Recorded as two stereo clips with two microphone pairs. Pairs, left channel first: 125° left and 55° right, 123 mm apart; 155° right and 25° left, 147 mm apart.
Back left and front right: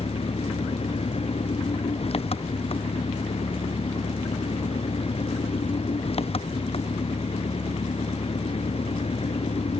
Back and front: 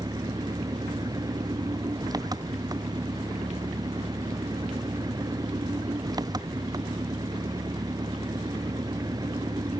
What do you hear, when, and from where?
0.0 s an engine running: 90° left